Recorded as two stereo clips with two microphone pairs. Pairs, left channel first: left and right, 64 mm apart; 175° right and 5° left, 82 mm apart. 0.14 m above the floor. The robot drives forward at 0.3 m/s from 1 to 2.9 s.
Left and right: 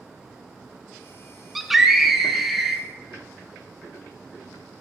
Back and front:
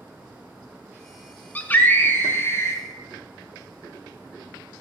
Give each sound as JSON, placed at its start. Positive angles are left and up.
{"t": 1.6, "sound": "a scream", "azimuth_deg": -175, "distance_m": 1.2}